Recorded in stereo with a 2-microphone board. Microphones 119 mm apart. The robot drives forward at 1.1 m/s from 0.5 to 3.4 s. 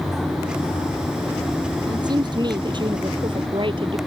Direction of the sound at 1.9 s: 35° right (ahead or behind).